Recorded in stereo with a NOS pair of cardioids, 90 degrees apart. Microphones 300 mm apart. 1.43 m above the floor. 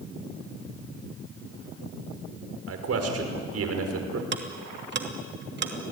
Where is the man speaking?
50° right, 5 m.